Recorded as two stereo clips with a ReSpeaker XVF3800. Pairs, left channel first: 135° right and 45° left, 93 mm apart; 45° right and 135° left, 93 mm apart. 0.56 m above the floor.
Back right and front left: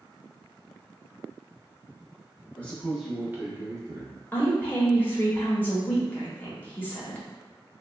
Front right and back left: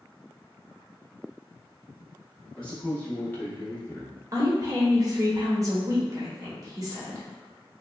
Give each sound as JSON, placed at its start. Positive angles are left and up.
{"t": 2.6, "sound": "a man speaking", "azimuth_deg": -100, "distance_m": 0.8}
{"t": 4.3, "sound": "a woman speaking", "azimuth_deg": 165, "distance_m": 0.8}